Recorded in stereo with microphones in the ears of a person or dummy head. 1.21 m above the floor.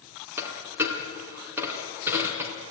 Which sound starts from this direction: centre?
A dropped coin, at 0.4 s.